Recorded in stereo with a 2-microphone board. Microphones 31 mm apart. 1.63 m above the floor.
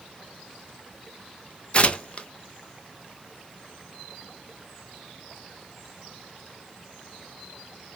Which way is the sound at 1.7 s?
35° left (ahead or behind).